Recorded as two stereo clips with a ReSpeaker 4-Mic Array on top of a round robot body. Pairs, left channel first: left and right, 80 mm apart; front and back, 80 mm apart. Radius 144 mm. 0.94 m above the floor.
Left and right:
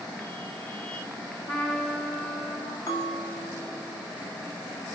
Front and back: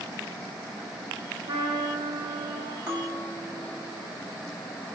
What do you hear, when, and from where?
1.5 s a trumpet: 170° left, 1.7 m
2.9 s a bell: 135° left, 1.5 m